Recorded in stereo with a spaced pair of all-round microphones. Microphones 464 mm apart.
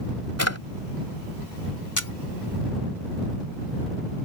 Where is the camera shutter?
40° left (ahead or behind).